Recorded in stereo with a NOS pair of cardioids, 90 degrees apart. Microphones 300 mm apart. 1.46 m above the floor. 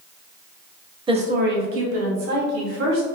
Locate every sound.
1.1 s a woman speaking: 15° right, 0.8 m; by 3.1 s 70° right, 1.9 m